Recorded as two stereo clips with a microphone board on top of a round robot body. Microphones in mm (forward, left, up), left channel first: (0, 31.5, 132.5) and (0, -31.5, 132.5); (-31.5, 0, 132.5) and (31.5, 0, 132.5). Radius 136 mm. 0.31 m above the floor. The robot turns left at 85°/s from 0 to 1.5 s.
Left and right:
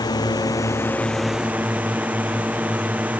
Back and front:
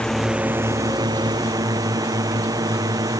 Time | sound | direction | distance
0.0 | a drone | 105° left | ?